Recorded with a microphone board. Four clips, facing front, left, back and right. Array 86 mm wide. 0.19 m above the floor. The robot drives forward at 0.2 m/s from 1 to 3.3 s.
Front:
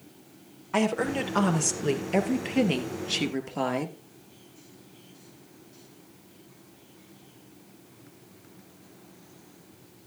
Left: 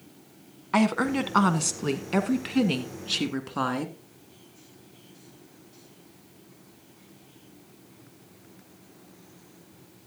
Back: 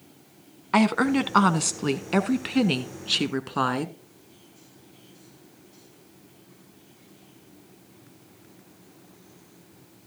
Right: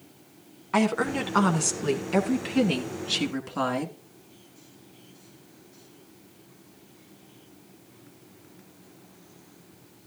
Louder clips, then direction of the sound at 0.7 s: Left 1 dB, back 5 dB; 170° left.